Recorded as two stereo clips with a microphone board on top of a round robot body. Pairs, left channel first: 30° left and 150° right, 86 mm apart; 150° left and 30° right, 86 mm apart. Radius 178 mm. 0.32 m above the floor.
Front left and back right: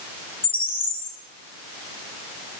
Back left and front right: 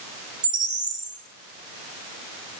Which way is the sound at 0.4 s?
15° left.